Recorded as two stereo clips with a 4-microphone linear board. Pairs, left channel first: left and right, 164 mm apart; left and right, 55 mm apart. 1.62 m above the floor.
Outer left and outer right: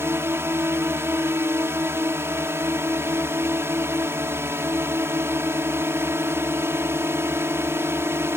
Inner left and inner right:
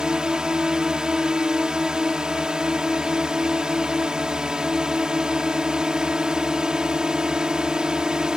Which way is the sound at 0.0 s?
15° right (ahead or behind).